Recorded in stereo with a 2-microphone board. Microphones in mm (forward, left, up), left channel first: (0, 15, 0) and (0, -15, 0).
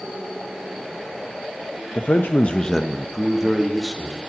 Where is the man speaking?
70° left (ahead or behind), 0.6 m; by 4.2 s 15° right (ahead or behind), 2.5 m.